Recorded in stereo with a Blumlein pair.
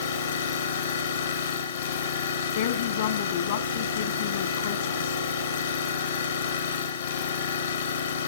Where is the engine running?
70° left, 2.5 m.